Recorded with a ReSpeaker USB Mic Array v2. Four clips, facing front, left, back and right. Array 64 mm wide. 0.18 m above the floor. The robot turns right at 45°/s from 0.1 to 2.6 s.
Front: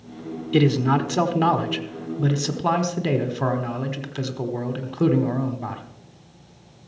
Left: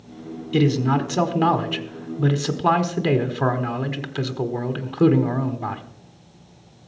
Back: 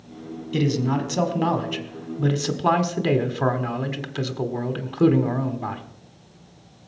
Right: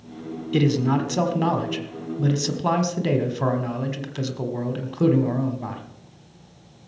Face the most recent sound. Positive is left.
turn(degrees=105)